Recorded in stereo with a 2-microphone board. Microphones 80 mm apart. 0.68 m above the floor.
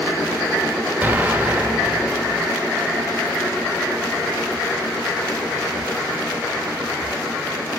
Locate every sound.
1.0 s an explosion: 15° right (ahead or behind), 1.1 m